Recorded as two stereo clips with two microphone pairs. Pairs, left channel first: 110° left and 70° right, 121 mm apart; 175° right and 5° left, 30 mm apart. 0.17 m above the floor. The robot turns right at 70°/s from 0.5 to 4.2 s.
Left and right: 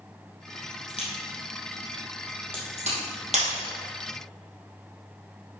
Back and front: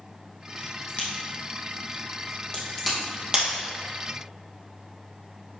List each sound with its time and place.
0.9 s a crack: 135° left, 2.5 m; by 3.0 s 80° right, 2.5 m
3.3 s breaking glass: 55° right, 2.5 m; by 3.5 s 40° right, 2.5 m